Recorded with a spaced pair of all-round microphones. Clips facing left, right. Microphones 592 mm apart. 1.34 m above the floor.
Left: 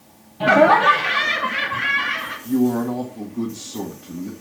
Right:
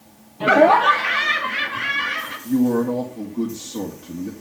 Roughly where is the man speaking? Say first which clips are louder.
Right 1 dB; centre.